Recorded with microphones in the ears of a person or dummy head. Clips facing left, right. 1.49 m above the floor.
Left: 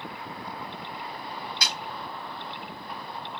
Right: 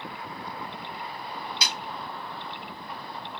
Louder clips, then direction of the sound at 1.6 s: Even; 30° right (ahead or behind).